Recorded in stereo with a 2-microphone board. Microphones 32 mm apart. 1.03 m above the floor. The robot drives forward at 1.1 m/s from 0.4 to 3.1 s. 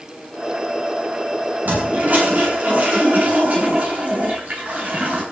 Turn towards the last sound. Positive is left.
turn(degrees=-55)  # may be behind; listen again after turning